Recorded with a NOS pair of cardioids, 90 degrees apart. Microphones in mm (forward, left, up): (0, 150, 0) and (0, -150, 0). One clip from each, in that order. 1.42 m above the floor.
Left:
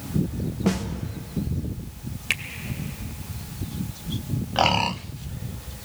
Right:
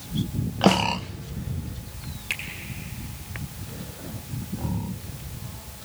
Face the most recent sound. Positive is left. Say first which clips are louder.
# left 4 dB
turn(degrees=45)